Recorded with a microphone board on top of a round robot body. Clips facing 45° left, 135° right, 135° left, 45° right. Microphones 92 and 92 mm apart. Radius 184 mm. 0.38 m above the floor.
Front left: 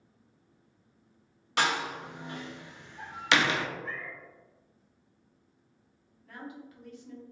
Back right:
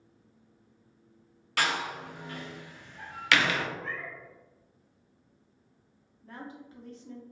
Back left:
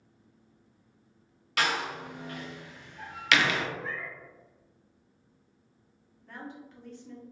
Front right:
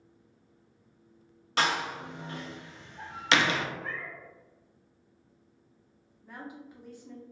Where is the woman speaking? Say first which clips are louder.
Even, even; 115° right, 1.0 m.